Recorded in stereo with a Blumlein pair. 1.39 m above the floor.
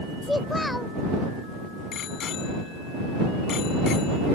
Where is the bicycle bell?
30° left.